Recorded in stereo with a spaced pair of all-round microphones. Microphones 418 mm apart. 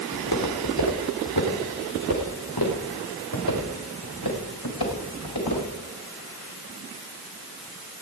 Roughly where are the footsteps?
Left.